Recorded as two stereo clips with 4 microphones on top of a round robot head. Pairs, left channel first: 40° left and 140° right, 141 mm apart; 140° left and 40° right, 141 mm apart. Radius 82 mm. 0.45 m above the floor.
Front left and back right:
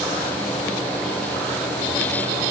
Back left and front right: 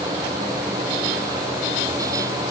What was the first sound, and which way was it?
Only background noise.